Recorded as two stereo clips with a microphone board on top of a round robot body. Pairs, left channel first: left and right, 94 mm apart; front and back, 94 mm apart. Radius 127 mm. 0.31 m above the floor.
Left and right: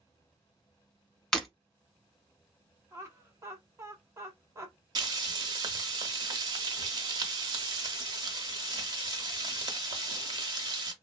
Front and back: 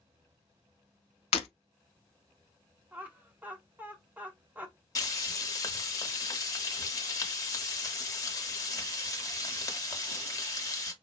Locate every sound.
1.3 s breaking glass: 5° left, 0.7 m
2.9 s laughter: 120° right, 1.2 m
5.0 s frying: 50° right, 1.0 m